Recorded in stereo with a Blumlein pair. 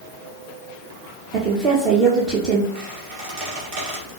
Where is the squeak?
45° right, 1.9 m.